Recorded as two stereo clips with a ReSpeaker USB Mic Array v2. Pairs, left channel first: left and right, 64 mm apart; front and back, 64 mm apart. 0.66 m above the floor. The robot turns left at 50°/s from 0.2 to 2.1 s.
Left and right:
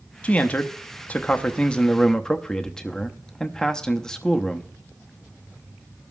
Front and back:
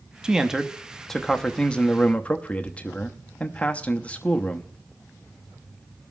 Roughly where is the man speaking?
Behind left.